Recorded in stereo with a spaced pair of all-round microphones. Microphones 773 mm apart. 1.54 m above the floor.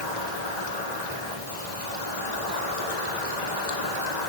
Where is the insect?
60° left (ahead or behind), 1.8 m.